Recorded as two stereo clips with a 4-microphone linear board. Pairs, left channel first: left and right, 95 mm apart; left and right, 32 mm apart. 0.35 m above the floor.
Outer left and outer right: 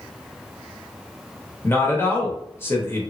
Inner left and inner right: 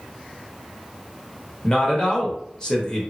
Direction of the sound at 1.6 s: 25° left (ahead or behind).